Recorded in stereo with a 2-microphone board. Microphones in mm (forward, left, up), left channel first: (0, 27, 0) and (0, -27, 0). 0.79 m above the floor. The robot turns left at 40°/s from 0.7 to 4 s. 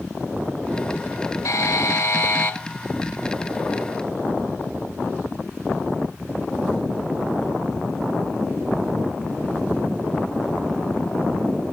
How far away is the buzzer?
About 1.0 m.